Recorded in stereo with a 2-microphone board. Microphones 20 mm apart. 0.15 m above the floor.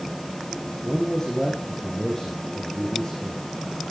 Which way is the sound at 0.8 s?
15° left (ahead or behind).